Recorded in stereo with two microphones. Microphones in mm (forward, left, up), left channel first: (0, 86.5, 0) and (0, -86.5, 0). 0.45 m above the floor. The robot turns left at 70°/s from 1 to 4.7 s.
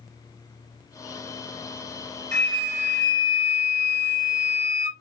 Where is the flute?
135° right, 1.0 m; by 4.9 s 60° left, 1.0 m.